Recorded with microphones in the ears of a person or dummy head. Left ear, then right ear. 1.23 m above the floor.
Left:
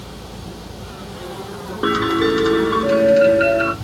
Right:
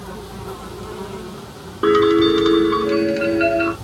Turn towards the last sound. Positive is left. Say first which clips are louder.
# right 4 dB
turn(degrees=-5)  # may be behind; listen again after turning